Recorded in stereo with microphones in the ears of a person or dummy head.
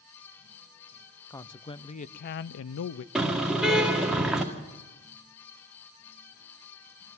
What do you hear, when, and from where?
1.3 s a man speaking: 15° left (ahead or behind), 0.8 m; by 3.0 s 80° left, 0.6 m
3.1 s a car horn: 5° right (ahead or behind), 2 m